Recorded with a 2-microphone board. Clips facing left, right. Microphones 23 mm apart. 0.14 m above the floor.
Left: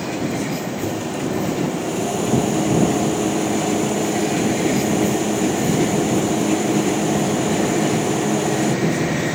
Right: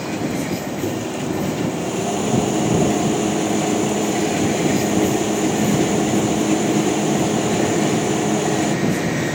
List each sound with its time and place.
0.8 s a microwave: 10° right (ahead or behind)